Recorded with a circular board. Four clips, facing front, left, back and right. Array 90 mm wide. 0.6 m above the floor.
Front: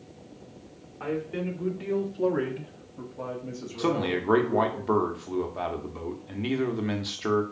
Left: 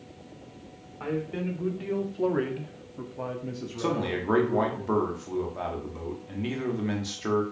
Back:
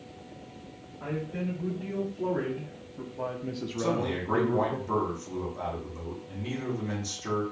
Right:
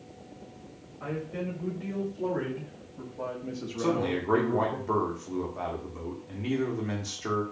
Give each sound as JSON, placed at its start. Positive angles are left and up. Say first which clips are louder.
{"t": 1.0, "sound": "a man speaking", "louder": "left 3 dB, front 3 dB", "azimuth_deg": 50, "distance_m": 1.5}
{"t": 3.8, "sound": "a man speaking", "louder": "right 1 dB, front 3 dB", "azimuth_deg": 15, "distance_m": 0.8}